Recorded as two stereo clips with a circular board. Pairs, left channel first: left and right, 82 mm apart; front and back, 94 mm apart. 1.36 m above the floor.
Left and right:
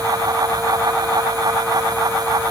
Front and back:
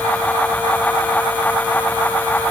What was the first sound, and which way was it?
Only background noise.